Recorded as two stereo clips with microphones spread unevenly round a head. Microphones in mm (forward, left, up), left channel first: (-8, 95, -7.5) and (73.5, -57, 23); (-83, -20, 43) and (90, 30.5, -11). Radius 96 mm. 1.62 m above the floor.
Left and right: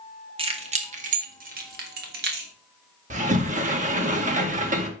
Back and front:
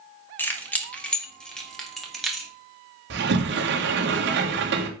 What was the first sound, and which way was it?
Keys jangling, 105° right.